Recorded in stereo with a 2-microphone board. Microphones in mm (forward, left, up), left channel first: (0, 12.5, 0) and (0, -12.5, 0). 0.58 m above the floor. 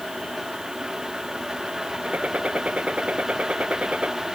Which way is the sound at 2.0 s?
60° right (ahead or behind).